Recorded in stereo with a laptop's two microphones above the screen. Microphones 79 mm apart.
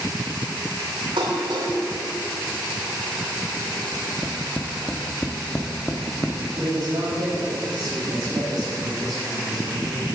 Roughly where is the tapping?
Centre.